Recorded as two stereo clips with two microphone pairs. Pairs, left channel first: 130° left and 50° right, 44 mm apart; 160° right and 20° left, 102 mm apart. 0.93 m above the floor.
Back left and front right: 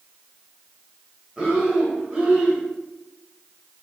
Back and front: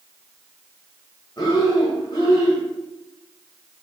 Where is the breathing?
115° right, 1.4 m.